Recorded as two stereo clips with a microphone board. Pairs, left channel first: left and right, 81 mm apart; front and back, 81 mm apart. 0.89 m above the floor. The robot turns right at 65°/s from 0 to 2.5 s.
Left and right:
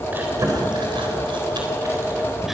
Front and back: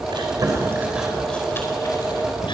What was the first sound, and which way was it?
Chewing, 155° right.